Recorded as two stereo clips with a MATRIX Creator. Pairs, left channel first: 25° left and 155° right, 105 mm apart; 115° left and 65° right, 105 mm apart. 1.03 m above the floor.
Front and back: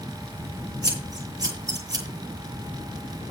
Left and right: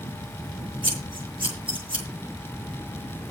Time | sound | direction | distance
0.8 | scissors | 100° right | 8.5 m